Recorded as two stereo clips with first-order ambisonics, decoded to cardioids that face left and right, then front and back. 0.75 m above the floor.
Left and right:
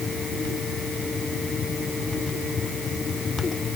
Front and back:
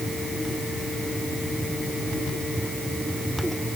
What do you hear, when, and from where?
Only background noise.